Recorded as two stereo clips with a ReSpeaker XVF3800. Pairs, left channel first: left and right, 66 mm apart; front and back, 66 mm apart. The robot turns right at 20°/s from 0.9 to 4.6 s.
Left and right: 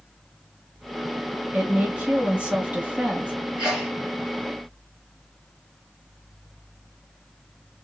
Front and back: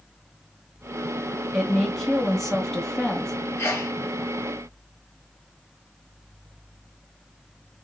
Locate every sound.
1.5 s a woman speaking: 100° right, 1.2 m; by 3.3 s 65° right, 1.2 m
3.6 s a sneeze: 20° right, 1.7 m; by 3.9 s 15° right, 1.7 m